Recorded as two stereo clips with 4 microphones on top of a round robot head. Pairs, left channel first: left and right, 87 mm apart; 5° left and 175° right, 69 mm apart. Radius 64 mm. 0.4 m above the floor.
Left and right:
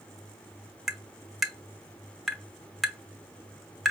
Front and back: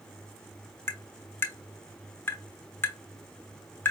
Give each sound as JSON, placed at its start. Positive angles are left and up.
{"t": 0.9, "sound": "tapping", "azimuth_deg": -5, "distance_m": 0.9}